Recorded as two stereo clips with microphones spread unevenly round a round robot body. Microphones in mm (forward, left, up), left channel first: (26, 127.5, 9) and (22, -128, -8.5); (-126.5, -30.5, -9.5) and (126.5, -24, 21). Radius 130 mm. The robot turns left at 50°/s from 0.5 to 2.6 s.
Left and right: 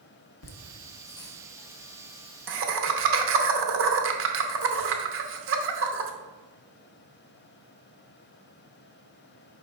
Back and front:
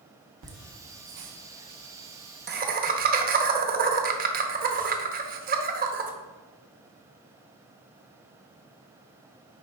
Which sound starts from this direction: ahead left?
Laughter, at 0.4 s.